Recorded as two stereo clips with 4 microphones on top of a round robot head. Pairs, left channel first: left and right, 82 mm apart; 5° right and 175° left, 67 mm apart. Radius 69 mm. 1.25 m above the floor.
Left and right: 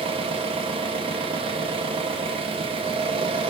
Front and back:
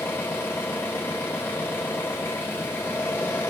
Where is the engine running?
70° right, 1.6 m.